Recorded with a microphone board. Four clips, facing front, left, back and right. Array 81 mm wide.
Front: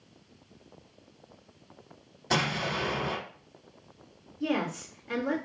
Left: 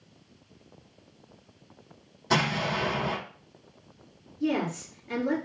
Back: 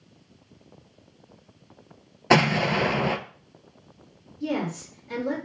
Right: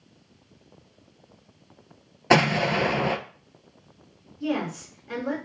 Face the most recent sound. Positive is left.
turn(degrees=-30)